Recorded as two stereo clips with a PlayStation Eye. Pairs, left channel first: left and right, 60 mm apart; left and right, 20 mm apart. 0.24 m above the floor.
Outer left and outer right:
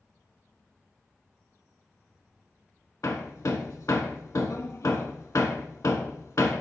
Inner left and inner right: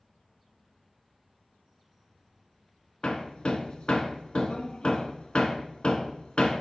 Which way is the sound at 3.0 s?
65° left (ahead or behind).